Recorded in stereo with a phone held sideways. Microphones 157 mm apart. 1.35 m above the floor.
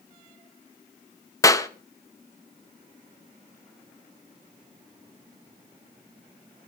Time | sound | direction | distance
1.4 | a clap | 20° left (ahead or behind) | 0.8 m